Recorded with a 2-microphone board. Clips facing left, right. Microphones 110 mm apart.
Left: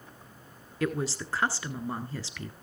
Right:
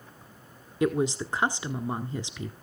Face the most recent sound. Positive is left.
turn(degrees=-20)  # may be behind; listen again after turning